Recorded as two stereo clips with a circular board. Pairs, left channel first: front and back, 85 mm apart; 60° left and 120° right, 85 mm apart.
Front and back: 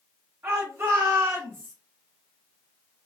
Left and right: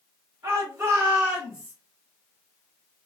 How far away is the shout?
About 2.0 m.